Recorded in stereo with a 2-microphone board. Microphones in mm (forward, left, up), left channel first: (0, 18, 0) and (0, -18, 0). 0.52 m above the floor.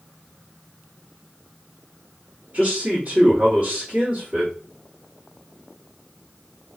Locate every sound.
2.5 s a man speaking: 40° right (ahead or behind), 1.6 m